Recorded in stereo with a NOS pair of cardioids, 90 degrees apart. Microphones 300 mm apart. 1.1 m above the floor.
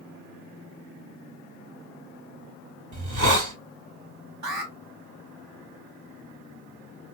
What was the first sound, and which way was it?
A hiss, 65° right.